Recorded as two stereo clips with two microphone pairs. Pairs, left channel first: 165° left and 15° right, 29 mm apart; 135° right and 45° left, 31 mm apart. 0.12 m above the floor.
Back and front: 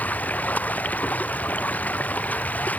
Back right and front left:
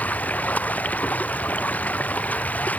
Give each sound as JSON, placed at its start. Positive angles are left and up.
{"t": 0.0, "sound": "running water", "azimuth_deg": -175}